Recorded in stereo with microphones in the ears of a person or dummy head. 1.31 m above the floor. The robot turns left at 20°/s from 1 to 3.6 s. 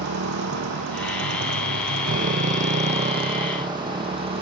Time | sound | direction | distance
0.0 | a motorcycle | 55° right (ahead or behind) | ?